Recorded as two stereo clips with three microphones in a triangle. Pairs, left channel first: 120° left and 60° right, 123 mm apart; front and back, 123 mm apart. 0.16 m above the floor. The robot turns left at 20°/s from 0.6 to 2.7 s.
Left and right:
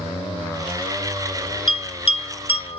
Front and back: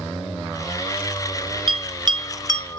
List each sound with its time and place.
1.7 s a bell: 145° left, 1.3 m; by 2.8 s 125° left, 1.3 m